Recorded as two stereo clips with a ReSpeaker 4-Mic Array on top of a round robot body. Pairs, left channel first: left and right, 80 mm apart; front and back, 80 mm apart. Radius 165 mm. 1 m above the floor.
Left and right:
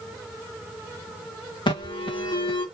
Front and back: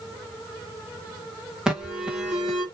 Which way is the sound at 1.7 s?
100° left.